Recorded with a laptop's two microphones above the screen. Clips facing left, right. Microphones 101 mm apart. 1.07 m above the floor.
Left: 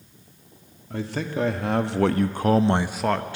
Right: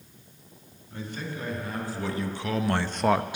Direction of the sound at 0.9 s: 90° left.